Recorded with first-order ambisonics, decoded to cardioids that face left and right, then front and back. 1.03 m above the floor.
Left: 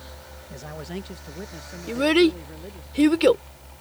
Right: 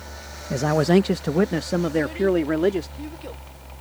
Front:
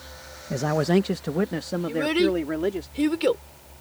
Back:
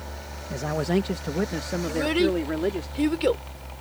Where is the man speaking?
70° right; by 2.9 s 90° right.